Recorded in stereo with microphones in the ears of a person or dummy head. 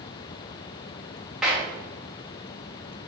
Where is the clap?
5° right (ahead or behind), 2.5 m.